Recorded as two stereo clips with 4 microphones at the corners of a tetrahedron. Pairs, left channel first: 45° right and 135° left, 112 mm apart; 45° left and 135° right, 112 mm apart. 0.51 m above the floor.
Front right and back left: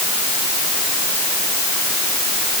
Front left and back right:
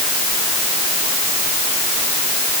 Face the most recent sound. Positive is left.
No sound to turn to.